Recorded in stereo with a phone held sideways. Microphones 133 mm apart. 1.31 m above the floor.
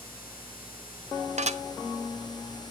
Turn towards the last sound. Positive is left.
turn(degrees=-60)  # may be behind; listen again after turning